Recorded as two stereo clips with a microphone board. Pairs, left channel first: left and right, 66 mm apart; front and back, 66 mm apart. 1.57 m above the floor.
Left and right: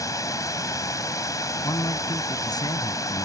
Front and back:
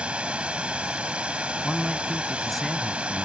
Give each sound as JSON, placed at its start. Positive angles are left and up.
{"t": 0.0, "sound": "running water", "azimuth_deg": 110}
{"t": 1.6, "sound": "a man speaking", "azimuth_deg": 90}